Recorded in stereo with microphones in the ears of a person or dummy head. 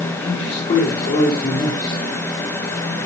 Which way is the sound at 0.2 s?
30° left (ahead or behind).